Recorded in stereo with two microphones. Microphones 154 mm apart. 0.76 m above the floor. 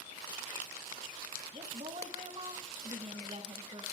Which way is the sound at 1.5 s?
40° right (ahead or behind).